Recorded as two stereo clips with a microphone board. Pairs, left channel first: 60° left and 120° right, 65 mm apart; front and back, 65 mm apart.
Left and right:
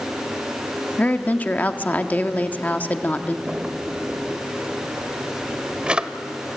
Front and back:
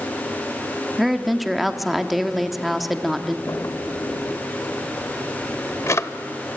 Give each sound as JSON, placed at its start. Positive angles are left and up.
{"t": 1.0, "sound": "a woman speaking", "azimuth_deg": 95, "distance_m": 0.8}
{"t": 3.5, "sound": "a drawer", "azimuth_deg": -45, "distance_m": 0.7}